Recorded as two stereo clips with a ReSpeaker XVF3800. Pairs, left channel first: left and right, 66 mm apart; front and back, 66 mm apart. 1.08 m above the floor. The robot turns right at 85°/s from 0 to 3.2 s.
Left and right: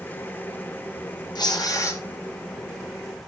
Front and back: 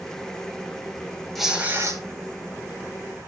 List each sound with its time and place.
1.4 s tearing paper: 85° left, 6 m; by 2.0 s 140° left, 6 m